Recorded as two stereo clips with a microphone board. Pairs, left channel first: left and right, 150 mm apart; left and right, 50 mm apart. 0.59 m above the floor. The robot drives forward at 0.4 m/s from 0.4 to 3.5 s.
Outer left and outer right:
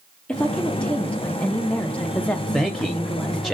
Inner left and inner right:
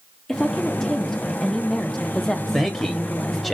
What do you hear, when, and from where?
0.3 s a woman speaking: 5° left (ahead or behind), 0.8 m
2.5 s a man speaking: centre (ahead or behind), 0.8 m